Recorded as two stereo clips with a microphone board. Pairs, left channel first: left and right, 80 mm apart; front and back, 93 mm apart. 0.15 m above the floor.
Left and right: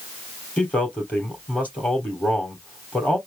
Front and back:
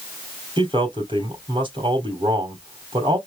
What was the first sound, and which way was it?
A man speaking, 160° left.